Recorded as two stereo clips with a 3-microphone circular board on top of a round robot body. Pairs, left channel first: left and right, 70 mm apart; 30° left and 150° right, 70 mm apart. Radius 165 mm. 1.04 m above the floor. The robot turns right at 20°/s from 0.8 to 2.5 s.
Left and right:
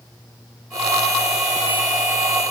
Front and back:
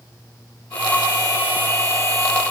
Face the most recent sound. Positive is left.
No sound to turn to.